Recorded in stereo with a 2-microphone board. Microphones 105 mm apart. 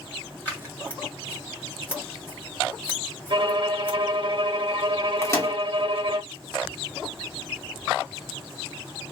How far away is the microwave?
About 0.9 m.